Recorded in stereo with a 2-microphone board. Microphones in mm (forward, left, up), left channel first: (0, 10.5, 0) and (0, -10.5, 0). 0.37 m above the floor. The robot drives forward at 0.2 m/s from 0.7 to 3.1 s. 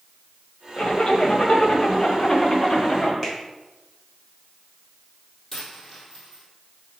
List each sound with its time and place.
0.8 s a zipper: 55° left (ahead or behind), 1.2 m; by 3.1 s 45° left (ahead or behind), 1.4 m
3.2 s a finger snap: 10° left (ahead or behind), 2.5 m
5.5 s a dropped coin: 15° left (ahead or behind), 2.5 m